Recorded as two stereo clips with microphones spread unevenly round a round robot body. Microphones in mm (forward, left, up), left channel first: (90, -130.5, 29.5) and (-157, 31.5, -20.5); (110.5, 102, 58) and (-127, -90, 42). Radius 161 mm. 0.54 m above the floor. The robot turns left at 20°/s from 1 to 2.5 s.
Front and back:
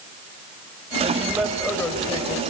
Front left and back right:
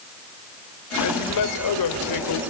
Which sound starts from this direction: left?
A man speaking, at 1.0 s.